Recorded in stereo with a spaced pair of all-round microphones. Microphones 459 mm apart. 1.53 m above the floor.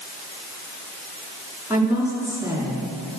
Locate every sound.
1.7 s a woman speaking: 5° right (ahead or behind), 4.5 m